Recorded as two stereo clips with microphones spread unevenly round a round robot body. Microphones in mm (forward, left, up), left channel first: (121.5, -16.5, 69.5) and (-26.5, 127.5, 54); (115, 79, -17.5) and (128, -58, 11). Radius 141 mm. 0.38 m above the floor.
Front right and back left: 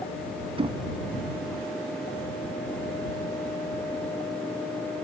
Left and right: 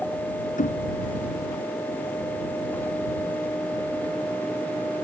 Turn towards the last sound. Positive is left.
turn(degrees=70)